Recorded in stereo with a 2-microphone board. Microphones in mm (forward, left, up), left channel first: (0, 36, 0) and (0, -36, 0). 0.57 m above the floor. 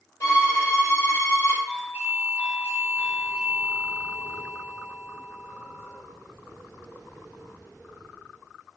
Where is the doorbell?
20° right (ahead or behind), 1.2 m.